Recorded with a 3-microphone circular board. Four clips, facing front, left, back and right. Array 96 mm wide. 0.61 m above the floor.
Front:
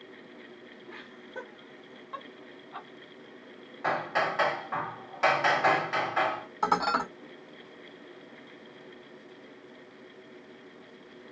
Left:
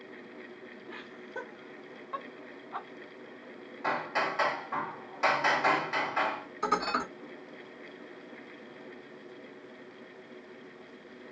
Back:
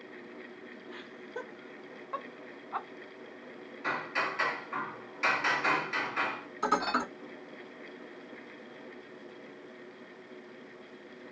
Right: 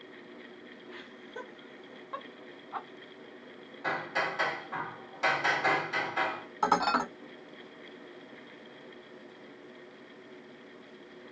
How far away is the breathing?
I don't hear breathing.